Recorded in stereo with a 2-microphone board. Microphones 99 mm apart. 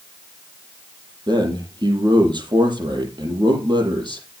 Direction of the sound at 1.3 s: 50° right (ahead or behind).